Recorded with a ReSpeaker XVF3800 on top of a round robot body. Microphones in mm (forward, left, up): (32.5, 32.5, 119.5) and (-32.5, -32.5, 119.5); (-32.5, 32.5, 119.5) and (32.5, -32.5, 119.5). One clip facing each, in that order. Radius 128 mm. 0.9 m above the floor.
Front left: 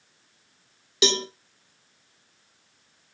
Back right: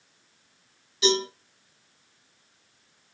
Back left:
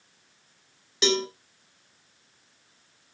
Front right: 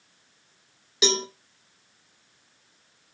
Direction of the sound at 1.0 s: 40° left.